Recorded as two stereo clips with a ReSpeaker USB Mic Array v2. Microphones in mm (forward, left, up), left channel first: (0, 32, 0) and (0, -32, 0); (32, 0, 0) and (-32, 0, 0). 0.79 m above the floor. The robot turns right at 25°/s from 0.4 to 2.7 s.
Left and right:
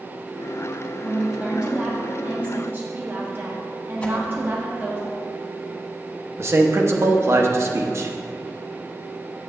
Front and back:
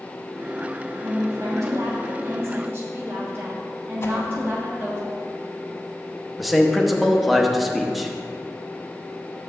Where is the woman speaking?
175° right, 1.4 m; by 5.0 s 135° right, 1.4 m.